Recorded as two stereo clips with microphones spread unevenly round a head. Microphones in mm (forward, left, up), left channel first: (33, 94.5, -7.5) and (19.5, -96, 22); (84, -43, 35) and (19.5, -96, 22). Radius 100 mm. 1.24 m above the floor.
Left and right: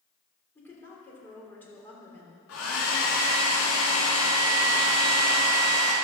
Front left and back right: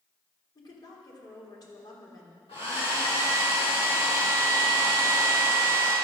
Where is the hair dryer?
80° left, 4 m.